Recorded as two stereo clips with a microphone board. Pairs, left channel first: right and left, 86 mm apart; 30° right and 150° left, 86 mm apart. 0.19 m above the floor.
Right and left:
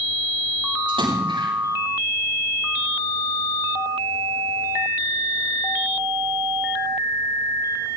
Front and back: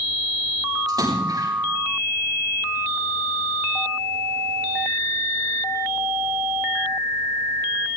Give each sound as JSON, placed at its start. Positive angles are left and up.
{"t": 0.9, "sound": "a splash", "azimuth_deg": 110, "distance_m": 9.5}